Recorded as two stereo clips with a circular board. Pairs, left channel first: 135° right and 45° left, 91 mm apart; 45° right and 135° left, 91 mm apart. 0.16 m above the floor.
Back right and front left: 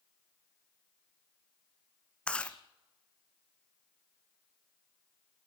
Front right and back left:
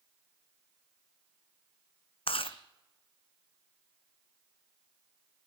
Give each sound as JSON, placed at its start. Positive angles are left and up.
{"t": 2.3, "sound": "chewing", "azimuth_deg": -55, "distance_m": 1.4}